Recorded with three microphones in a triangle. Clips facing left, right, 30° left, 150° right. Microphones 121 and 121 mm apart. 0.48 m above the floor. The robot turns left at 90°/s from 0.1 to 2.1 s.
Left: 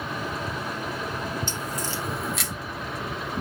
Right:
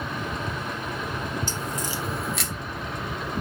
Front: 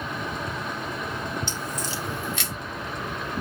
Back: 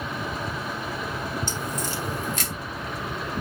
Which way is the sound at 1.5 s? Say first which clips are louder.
Right 1 dB, back 2 dB; 125° right.